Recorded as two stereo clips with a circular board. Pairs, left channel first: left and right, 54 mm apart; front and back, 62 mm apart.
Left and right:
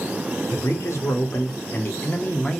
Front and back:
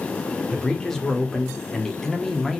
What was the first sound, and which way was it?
A man speaking, 80° left.